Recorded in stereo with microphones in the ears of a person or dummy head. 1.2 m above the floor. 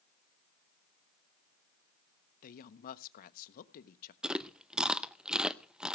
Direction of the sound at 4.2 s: 5° left (ahead or behind).